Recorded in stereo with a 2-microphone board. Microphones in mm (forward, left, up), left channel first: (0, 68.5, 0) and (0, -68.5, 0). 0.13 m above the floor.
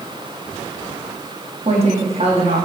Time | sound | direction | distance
1.6 | a woman speaking | 45° right (ahead or behind) | 5.5 m